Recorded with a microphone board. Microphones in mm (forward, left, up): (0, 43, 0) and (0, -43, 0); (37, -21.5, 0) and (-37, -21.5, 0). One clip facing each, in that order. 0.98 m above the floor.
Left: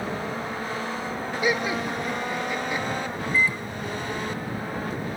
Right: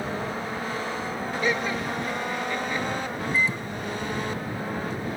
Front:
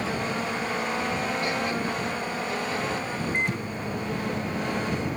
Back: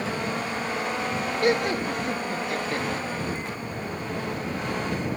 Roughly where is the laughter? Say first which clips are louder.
Left 2 dB, back 4 dB; behind.